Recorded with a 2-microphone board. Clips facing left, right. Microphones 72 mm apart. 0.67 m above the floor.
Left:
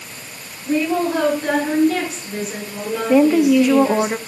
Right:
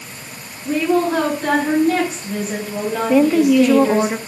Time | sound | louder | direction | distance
0.7 | a woman speaking | right 2 dB | 45° right (ahead or behind) | 5.5 m
3.1 | a woman speaking | left 1 dB | 5° left (ahead or behind) | 0.8 m